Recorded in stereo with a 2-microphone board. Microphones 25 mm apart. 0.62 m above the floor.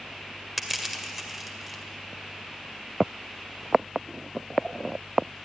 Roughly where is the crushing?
Centre.